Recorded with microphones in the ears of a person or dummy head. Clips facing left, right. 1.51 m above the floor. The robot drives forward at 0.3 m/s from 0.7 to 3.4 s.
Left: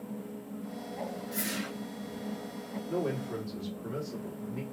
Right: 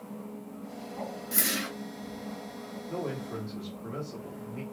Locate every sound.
1.3 s a whoosh: 55° right (ahead or behind), 0.8 m; by 1.7 s 65° right (ahead or behind), 0.7 m
2.9 s a man speaking: 10° left (ahead or behind), 1.5 m